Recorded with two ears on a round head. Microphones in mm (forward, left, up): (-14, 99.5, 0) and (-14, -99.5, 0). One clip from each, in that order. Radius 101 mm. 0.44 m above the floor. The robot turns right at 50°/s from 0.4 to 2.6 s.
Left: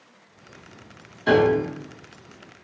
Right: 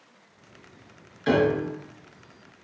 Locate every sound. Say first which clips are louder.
1.3 s a piano: left 4 dB; 50° right (ahead or behind), 1.1 m; by 1.7 s 30° right (ahead or behind), 1.1 m